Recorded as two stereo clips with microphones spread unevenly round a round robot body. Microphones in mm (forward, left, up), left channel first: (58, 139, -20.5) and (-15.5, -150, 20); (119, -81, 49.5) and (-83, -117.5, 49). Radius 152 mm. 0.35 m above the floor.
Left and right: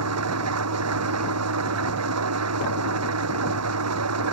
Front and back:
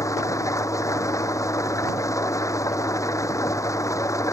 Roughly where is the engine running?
Ahead right.